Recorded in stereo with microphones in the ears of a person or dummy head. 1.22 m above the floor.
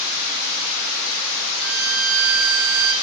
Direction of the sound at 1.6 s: 80° right.